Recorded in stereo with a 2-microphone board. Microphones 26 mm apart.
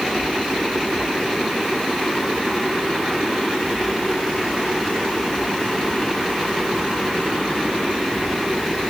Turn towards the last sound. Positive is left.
No sound to turn to.